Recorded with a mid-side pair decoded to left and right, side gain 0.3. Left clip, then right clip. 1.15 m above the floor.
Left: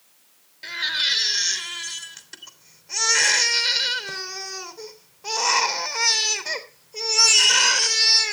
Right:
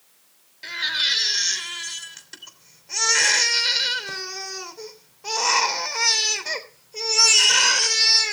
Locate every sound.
0.6 s a baby crying: straight ahead, 3 m